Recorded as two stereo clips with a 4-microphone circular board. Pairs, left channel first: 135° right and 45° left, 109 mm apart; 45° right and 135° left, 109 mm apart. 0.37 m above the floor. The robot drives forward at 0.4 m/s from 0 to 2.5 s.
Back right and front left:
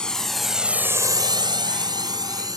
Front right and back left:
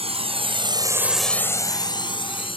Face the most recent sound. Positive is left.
turn(degrees=-10)